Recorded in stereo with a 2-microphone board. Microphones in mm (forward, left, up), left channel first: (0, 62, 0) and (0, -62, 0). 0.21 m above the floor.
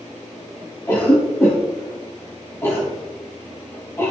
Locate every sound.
0.9 s a cough: 20° left (ahead or behind), 1.8 m